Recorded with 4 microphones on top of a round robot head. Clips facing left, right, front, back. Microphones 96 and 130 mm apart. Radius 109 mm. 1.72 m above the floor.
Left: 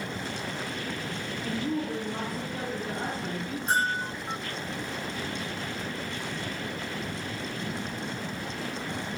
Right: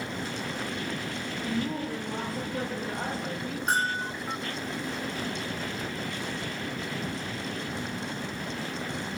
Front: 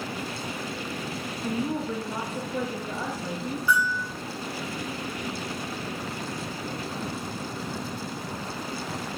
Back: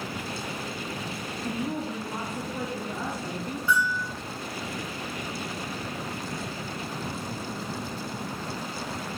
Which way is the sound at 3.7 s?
110° right.